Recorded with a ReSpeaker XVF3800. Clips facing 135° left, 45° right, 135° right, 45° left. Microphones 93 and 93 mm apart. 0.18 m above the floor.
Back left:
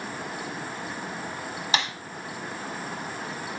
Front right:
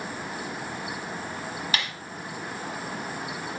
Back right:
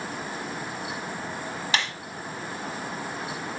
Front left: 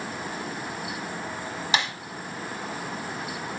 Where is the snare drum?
100° left, 1.1 m.